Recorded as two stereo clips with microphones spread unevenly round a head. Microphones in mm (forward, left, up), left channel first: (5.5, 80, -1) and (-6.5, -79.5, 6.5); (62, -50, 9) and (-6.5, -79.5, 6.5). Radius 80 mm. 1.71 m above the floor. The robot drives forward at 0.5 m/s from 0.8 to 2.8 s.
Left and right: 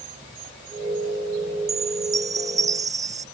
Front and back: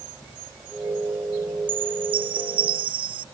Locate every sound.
1.7 s a chime: 165° right